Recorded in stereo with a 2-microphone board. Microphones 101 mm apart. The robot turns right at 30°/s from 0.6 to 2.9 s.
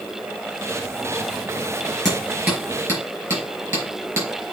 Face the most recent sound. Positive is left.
turn(degrees=-25)  # may be behind; listen again after turning